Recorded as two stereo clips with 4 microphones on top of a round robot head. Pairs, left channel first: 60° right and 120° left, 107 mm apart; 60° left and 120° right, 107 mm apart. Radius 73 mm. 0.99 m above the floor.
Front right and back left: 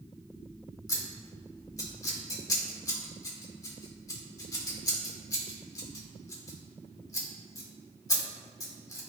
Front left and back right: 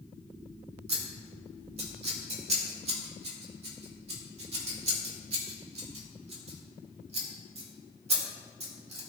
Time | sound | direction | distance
0.9 | scissors | 115° right | 1.7 m